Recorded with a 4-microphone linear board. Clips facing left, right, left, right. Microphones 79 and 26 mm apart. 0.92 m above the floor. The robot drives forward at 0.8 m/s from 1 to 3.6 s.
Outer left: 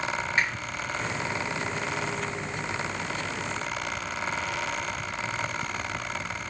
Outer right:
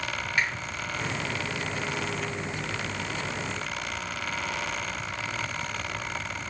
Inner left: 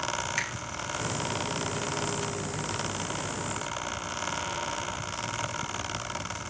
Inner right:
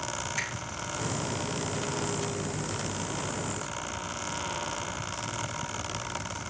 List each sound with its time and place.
0.4 s a finger snap: 25° left (ahead or behind), 2 m